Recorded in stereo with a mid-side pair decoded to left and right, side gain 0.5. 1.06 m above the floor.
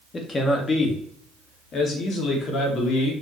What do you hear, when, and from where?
0.1 s a man speaking: 35° left, 2 m; by 3.1 s 70° left, 3 m